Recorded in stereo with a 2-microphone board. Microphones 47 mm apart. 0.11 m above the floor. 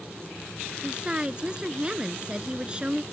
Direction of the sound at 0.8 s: 20° right (ahead or behind).